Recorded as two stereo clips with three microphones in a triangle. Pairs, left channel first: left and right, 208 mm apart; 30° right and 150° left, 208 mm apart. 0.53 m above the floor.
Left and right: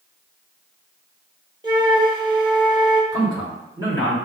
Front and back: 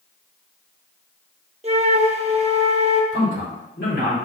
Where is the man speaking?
20° right, 1.8 m.